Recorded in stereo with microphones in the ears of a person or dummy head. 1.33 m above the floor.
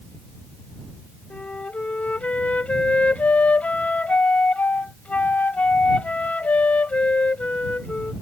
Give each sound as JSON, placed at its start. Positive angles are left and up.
{"t": 1.3, "sound": "a flute", "side_deg": 10}